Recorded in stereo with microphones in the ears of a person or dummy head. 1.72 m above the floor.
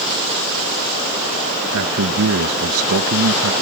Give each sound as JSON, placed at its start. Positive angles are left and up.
{"t": 1.7, "sound": "a man speaking", "side_deg": -75}